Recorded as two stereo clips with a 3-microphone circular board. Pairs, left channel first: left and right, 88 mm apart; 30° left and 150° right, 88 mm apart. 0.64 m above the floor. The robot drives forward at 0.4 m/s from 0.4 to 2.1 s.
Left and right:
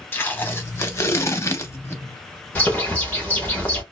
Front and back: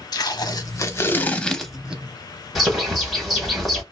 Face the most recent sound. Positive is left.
turn(degrees=125)